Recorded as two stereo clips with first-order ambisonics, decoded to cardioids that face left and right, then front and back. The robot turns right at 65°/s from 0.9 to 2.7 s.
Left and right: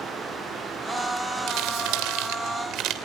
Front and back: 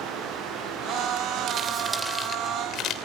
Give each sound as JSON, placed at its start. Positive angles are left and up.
{"t": 1.5, "sound": "crumpling", "azimuth_deg": -130, "distance_m": 3.0}